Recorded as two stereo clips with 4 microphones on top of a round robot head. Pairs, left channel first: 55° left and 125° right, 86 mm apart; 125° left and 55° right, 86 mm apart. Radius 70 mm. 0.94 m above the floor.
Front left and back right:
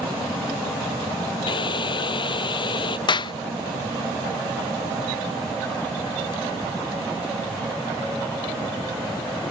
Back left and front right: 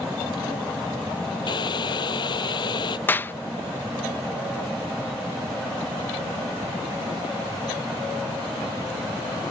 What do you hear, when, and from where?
1.5 s boiling: 85° left
3.1 s a clap: 60° left